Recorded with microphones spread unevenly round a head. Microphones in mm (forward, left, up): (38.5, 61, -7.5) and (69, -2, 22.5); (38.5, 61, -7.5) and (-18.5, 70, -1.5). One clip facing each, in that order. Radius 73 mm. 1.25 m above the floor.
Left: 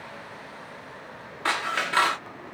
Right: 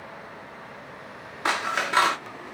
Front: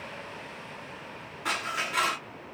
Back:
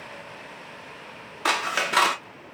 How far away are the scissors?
About 0.7 m.